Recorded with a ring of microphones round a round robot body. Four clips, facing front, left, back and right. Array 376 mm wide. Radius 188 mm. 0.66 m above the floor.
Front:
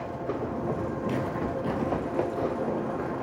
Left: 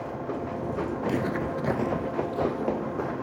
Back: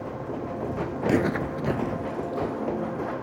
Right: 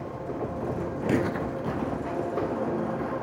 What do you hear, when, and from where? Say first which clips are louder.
1.0 s footsteps: right 3 dB, back 9 dB; 150° right, 1.0 m; by 3.1 s 85° left, 3 m